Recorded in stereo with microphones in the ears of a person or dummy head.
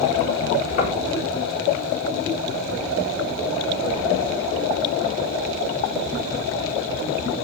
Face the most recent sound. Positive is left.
turn(degrees=45)  # may be behind; listen again after turning